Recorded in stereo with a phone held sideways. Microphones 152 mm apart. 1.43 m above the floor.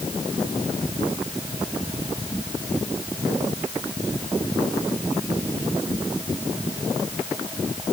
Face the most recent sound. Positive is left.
No sound to turn to.